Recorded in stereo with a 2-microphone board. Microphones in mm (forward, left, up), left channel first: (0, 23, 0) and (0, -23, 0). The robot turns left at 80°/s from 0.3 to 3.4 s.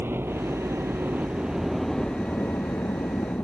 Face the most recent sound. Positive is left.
turn(degrees=50)